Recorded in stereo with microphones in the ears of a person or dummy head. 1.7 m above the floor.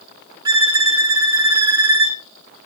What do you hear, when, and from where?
0.5 s a violin: 20° right (ahead or behind), 2.0 m